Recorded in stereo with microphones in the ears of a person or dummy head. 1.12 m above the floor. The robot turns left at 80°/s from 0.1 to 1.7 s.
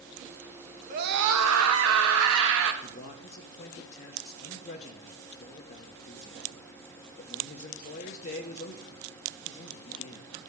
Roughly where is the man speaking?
Left.